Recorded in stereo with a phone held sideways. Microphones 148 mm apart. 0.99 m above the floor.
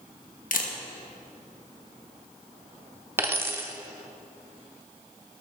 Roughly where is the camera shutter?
Left.